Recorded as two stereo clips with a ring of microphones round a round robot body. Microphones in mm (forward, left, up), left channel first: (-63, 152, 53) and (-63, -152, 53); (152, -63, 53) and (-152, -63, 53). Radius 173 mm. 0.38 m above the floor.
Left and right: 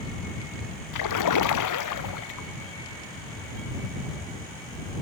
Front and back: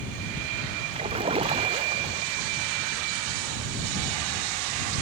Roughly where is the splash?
Left.